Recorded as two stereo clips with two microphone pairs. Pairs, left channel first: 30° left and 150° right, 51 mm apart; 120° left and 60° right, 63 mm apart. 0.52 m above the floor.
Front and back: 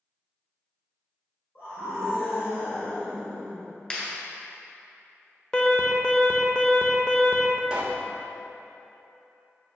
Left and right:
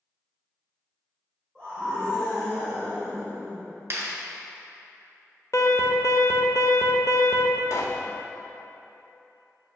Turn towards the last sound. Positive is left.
turn(degrees=140)